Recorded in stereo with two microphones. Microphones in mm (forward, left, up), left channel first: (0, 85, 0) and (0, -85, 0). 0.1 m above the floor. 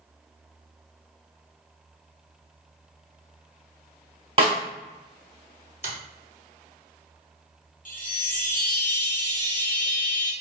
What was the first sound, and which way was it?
A snare drum, 35° right (ahead or behind).